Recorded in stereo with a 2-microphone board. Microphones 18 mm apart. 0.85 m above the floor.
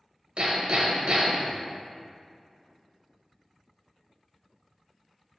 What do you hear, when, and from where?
0.4 s hammering: 70° right (ahead or behind), 1.5 m